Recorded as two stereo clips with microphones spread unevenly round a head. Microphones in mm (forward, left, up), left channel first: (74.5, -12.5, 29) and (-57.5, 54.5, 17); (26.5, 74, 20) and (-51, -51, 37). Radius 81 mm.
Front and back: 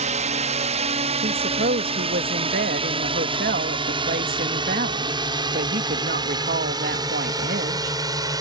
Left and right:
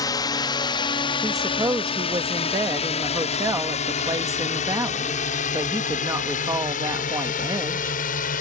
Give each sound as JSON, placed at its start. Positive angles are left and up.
{"t": 0.0, "sound": "a drone", "azimuth_deg": 120}
{"t": 1.2, "sound": "a woman speaking", "azimuth_deg": 170}